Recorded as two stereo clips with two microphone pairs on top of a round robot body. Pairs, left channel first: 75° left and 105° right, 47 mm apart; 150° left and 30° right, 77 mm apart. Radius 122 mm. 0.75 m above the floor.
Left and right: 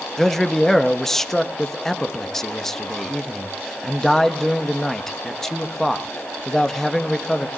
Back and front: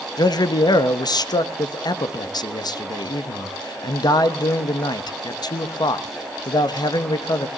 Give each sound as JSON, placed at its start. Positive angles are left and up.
{"t": 0.2, "sound": "a man speaking", "azimuth_deg": 155, "distance_m": 1.3}